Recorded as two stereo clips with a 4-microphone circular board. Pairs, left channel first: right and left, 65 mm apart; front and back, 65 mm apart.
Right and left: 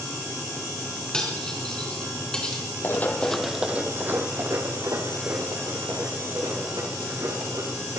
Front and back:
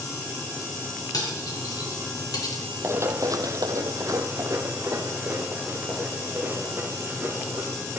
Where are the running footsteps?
135° right, 1.0 m; by 8.0 s 115° left, 5.5 m.